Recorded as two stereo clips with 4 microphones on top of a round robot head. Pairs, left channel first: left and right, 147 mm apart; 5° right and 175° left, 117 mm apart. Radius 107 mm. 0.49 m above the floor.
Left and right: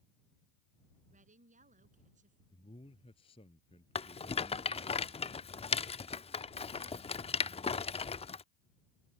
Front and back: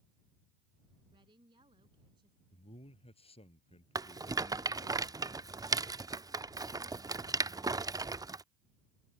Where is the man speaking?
30° left.